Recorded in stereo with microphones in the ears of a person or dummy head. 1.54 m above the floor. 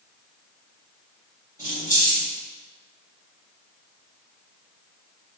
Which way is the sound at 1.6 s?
10° right (ahead or behind).